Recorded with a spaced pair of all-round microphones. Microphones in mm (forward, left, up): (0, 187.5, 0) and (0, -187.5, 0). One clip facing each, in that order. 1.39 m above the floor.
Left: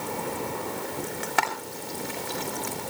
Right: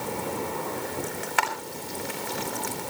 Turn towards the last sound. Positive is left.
turn(degrees=55)  # may be behind; listen again after turning